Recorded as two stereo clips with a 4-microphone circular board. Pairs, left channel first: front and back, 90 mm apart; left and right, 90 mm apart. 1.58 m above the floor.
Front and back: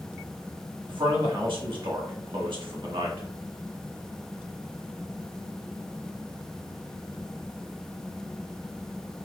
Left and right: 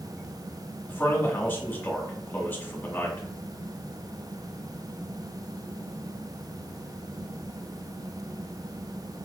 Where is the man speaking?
155° left, 1.6 m.